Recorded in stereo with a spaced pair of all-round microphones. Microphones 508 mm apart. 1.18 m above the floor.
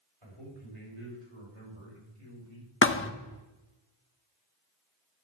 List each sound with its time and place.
0.2 s a man speaking: 80° right, 5 m; by 2.7 s 70° right (ahead or behind), 4 m
2.8 s a thud: 25° left (ahead or behind), 0.6 m